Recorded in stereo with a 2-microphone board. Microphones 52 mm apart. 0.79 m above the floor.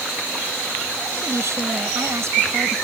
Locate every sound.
1.2 s a woman speaking: 65° right (ahead or behind)